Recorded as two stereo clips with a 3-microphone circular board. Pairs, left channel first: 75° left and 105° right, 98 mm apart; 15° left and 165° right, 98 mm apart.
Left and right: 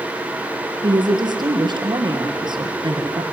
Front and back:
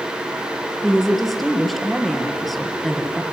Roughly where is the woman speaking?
Right.